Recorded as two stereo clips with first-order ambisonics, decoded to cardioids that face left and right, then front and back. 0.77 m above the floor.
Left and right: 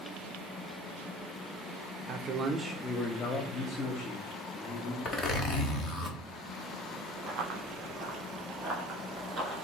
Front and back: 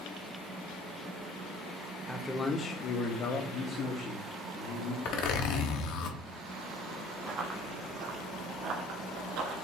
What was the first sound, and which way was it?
A man speaking, 85° right.